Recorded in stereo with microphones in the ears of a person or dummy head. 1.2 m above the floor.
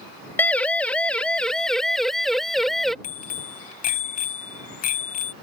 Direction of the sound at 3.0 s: 45° left (ahead or behind).